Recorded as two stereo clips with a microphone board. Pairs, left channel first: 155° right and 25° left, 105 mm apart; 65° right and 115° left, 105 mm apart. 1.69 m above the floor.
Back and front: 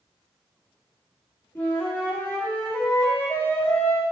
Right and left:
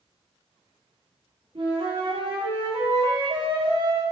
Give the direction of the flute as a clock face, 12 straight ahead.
8 o'clock.